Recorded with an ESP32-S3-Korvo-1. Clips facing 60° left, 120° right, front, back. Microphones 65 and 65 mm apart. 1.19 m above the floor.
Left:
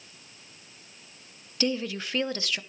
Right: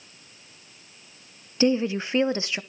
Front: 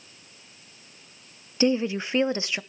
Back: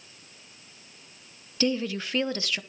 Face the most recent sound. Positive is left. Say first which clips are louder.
# right 7 dB, front 4 dB
turn(degrees=-60)